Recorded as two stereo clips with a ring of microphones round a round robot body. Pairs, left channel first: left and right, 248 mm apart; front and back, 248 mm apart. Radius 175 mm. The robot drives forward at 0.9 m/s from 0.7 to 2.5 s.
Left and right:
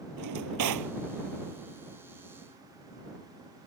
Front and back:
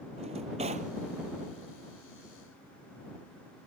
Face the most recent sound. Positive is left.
turn(degrees=-135)